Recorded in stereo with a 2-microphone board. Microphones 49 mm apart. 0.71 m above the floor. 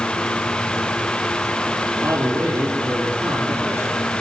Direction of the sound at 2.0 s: 80° right.